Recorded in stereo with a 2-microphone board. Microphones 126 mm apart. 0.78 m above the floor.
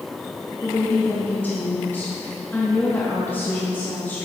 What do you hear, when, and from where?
0.6 s a woman speaking: 15° left (ahead or behind), 1.0 m